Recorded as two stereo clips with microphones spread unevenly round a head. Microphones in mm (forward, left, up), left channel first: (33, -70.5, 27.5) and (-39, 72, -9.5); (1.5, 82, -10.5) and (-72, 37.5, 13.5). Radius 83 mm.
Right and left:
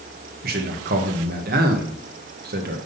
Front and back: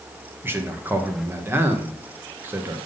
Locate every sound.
0.4 s a man speaking: 145° left, 1.6 m